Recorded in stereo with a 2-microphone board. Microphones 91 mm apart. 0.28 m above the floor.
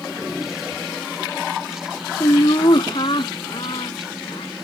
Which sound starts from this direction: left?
Laughter, at 2.2 s.